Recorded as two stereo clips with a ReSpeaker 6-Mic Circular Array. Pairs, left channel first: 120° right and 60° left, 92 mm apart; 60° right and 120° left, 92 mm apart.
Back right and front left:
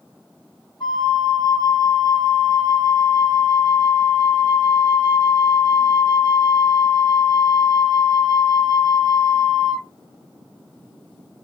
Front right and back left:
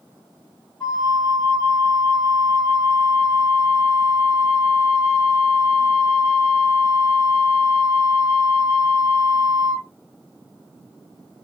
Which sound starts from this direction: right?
A flute, at 0.8 s.